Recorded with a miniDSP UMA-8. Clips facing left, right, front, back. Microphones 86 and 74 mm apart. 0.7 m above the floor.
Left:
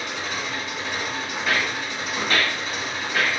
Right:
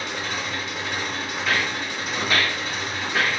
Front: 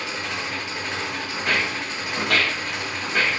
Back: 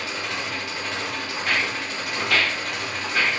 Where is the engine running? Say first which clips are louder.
Even, even; 70° right, 1.6 m.